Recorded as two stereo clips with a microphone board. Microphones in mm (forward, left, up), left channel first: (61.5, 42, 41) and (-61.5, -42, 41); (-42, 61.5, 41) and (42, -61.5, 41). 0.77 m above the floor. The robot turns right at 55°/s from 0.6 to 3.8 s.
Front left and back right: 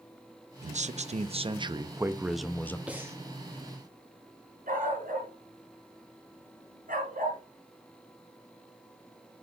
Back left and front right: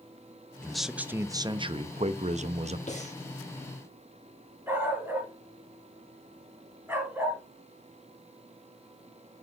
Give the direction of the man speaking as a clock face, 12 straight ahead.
5 o'clock.